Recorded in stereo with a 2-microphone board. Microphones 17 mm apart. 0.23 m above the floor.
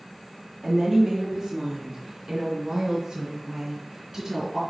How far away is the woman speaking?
About 1.9 m.